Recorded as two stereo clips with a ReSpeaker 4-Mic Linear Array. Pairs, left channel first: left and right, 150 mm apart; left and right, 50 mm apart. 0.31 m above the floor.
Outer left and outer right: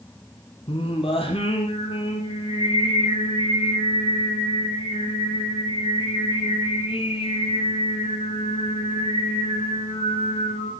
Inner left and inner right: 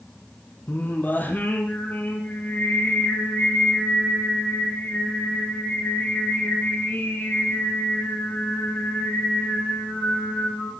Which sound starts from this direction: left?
Singing, at 0.7 s.